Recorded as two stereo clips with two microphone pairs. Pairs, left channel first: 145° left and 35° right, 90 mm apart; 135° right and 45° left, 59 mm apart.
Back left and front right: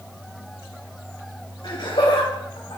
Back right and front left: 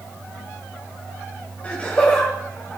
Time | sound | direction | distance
1.6 | laughter | 165° left | 2.5 m